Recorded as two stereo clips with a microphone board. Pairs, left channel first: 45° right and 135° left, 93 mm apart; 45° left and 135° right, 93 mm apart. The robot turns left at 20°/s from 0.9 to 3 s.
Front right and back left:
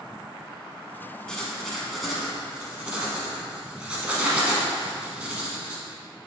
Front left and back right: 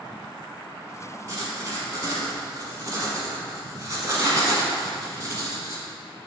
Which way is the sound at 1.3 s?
125° right.